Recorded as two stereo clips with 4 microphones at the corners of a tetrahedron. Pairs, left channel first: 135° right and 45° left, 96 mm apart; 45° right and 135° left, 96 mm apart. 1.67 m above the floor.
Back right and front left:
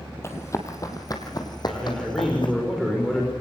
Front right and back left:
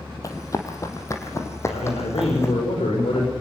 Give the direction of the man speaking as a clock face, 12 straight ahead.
2 o'clock.